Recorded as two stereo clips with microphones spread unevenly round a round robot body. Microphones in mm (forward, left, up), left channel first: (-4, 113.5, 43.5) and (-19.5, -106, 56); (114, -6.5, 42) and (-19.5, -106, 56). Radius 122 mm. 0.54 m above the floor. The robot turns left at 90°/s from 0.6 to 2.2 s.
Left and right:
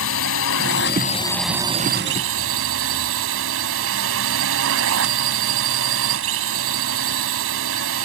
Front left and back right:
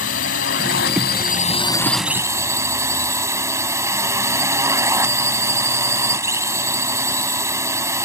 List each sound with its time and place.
0.0 s a drone: 75° left; by 8.0 s 70° right